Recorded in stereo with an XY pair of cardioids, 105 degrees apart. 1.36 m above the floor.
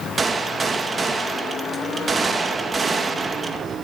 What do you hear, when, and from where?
0.2 s a gunshot: 35° right, 1.8 m